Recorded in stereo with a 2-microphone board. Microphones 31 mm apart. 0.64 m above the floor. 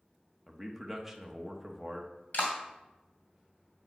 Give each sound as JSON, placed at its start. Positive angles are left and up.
{"t": 0.5, "sound": "a man speaking", "side_deg": -5, "distance_m": 0.9}
{"t": 2.3, "sound": "a clap", "side_deg": 60, "distance_m": 2.5}